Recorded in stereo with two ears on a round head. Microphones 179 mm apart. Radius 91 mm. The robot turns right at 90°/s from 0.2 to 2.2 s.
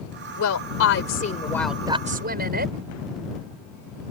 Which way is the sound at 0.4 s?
60° left.